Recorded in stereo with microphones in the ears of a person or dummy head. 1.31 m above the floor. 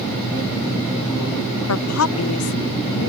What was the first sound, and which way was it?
A woman speaking, 80° left.